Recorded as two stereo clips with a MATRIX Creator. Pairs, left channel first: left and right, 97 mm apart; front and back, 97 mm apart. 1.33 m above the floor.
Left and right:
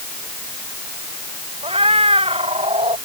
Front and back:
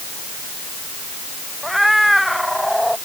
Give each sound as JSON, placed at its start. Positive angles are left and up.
{"t": 1.6, "sound": "a cat meowing", "azimuth_deg": -90}